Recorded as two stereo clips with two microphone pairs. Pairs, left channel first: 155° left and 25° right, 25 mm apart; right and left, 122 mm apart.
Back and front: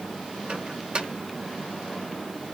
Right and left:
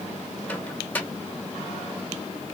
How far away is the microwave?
About 1.2 m.